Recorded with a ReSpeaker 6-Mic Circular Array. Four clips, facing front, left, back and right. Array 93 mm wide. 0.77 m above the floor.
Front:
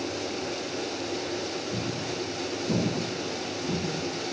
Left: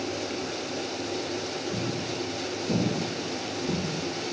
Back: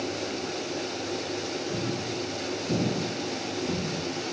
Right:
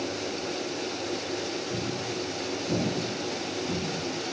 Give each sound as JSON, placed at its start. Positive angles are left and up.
{"t": 1.7, "sound": "footsteps", "azimuth_deg": 0, "distance_m": 1.4}